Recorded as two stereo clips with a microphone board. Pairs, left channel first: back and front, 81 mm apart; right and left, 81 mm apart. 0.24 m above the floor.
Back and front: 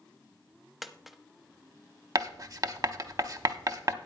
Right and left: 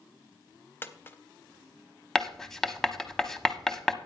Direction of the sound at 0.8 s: 85° right.